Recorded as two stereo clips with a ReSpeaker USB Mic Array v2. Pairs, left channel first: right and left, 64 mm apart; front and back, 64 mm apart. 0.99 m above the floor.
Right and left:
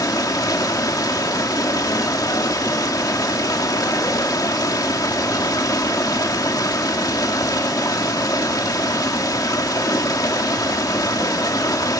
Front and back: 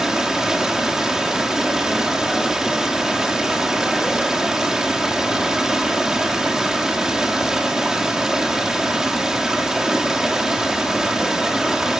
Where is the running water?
100° right, 1.8 m.